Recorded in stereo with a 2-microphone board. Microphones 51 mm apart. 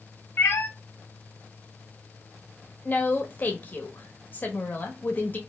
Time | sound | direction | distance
0.4 | a cat meowing | 50° left (ahead or behind) | 0.8 m
2.9 | a woman speaking | 35° left (ahead or behind) | 1.0 m